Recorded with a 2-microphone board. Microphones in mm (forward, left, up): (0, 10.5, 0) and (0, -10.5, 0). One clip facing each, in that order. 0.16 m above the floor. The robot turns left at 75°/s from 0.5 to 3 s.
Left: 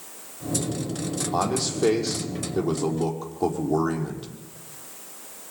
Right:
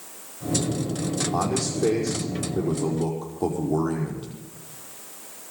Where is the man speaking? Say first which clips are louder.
Left 4 dB; 145° left, 5 m; by 4.3 s 15° left, 5 m.